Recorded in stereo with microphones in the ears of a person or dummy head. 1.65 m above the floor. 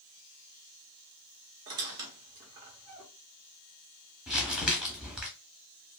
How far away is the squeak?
About 0.7 m.